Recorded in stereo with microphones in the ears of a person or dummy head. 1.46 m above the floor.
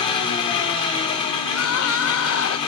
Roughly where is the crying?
Left.